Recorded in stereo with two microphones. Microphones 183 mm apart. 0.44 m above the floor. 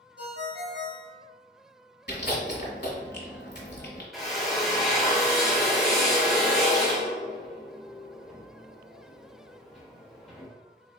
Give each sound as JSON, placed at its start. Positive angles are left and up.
{"t": 0.2, "sound": "a ringtone", "side_deg": -70, "distance_m": 1.0}
{"t": 2.1, "sound": "chewing", "side_deg": 70, "distance_m": 1.2}
{"t": 4.1, "sound": "a drill", "side_deg": 0, "distance_m": 1.1}